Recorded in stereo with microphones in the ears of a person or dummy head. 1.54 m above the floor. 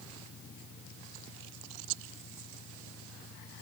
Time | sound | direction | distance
0.0 | an engine running | 85° left | ?